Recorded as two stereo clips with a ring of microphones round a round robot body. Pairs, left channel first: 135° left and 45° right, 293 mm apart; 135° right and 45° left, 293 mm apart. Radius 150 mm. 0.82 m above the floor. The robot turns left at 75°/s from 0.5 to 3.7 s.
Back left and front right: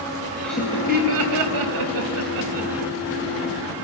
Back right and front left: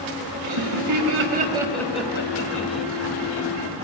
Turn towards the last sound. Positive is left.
turn(degrees=170)